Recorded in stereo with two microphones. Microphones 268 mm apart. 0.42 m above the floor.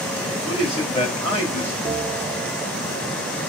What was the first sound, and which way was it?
A man speaking, 20° left (ahead or behind).